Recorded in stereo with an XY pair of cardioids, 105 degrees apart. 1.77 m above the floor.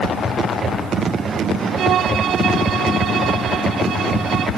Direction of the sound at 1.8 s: 70° right.